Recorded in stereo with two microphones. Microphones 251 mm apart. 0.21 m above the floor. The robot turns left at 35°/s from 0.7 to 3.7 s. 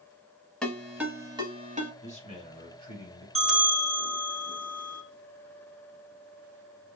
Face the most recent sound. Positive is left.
turn(degrees=-10)  # may be behind; listen again after turning